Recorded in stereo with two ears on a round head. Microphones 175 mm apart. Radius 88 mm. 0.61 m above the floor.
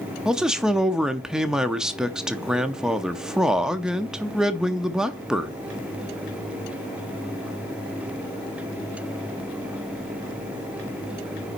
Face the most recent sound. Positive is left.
turn(degrees=-5)  # may be behind; listen again after turning